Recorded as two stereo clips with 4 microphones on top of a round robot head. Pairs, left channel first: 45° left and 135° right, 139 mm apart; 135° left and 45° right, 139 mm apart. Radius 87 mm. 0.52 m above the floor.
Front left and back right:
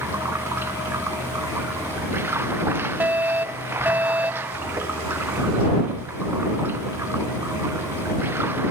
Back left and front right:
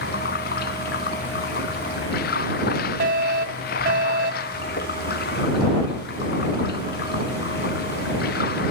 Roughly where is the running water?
Behind left.